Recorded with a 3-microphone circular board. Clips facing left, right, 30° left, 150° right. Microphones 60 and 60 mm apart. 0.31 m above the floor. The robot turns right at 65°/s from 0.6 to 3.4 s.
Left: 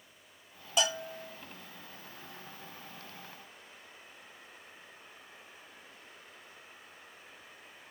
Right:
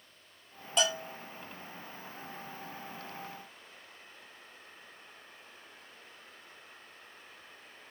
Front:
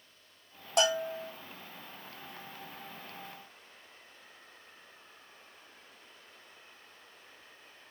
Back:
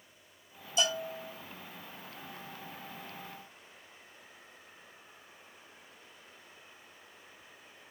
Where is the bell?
5° left, 3 m; by 1.3 s 40° left, 3 m.